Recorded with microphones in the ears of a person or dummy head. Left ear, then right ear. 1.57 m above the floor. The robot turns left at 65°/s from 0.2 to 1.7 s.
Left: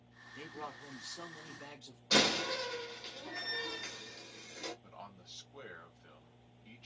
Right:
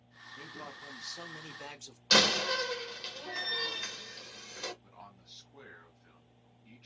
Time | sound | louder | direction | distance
0.3 | a man speaking | even | 15° left | 1.2 m
2.1 | a door slam | right 5 dB | 55° right (ahead or behind) | 1.3 m
4.8 | a man speaking | left 2 dB | 20° left (ahead or behind) | 1.9 m